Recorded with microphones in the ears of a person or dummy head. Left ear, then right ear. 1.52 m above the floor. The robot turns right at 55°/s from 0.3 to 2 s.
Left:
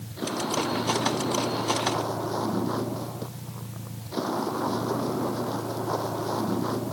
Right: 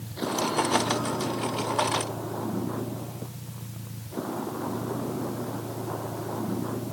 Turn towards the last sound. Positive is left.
turn(degrees=80)